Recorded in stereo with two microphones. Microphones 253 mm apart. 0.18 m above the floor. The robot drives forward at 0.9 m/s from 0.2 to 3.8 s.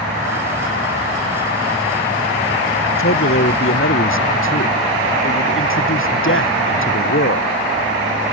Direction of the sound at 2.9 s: 60° left (ahead or behind).